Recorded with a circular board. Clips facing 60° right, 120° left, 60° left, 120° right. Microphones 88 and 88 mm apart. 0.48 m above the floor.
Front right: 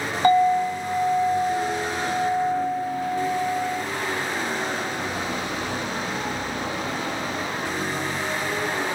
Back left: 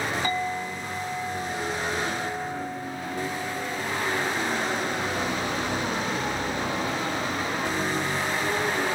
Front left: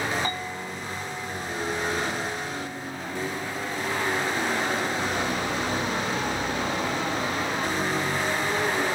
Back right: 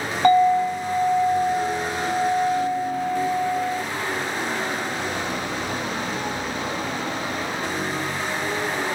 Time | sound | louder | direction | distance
0.2 | a clink | front right 11 dB, back right 16 dB | 100° right | 1.5 m